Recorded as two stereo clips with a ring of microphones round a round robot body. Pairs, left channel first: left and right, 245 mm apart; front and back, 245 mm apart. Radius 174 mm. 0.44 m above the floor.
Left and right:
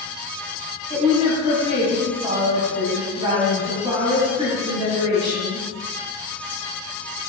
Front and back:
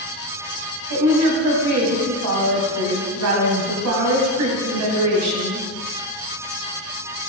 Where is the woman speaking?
165° right, 2.5 m.